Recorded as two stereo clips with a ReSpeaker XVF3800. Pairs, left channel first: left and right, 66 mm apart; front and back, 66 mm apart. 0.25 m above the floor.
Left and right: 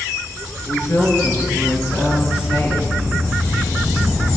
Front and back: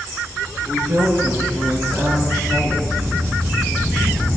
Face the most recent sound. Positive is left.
turn(degrees=140)